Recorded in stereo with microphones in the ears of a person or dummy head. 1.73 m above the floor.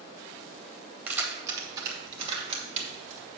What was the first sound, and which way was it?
Keys jangling, 10° right (ahead or behind).